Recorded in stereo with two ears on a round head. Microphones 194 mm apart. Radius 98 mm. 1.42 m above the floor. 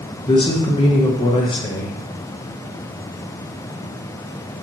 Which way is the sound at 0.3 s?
20° left (ahead or behind).